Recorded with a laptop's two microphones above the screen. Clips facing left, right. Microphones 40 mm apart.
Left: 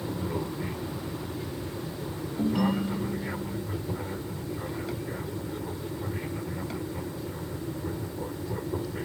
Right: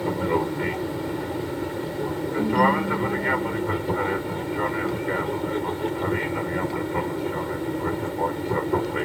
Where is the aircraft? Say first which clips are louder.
Right 9 dB; 60° right (ahead or behind).